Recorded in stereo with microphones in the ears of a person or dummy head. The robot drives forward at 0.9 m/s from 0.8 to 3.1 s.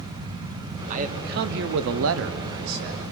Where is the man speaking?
45° right (ahead or behind), 1.6 m; by 3.0 s 55° right (ahead or behind), 1.4 m.